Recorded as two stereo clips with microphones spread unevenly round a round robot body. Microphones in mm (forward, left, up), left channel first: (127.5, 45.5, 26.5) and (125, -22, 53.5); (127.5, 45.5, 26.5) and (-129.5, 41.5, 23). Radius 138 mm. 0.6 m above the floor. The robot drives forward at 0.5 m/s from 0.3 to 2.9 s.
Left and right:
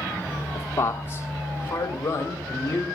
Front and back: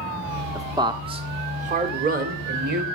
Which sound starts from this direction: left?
A man speaking, at 0.6 s.